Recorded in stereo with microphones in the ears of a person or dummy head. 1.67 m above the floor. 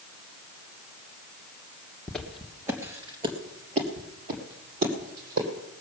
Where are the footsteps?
Centre (ahead or behind), 1.9 m; by 5.5 s 60° right (ahead or behind), 4.5 m.